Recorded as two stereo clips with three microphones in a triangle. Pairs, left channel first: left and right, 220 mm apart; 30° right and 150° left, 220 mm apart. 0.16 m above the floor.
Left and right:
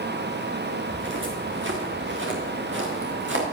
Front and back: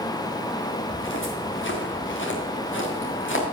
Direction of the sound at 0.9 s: 60° right.